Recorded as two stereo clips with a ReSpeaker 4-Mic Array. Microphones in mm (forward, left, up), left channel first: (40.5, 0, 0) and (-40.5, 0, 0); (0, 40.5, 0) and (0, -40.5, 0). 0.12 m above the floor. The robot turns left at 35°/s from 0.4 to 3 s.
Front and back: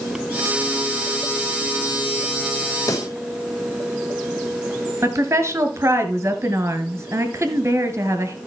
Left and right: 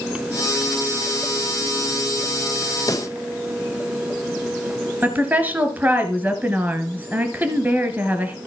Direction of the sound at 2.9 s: 45° left.